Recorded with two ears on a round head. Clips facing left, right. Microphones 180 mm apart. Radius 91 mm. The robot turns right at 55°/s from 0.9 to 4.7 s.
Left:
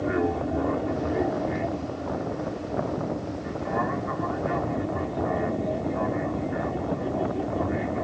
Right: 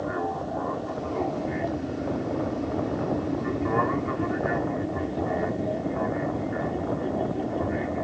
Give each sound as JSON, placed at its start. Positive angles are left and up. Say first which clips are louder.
{"t": 0.0, "sound": "an aircraft", "louder": "left 4 dB", "azimuth_deg": 150}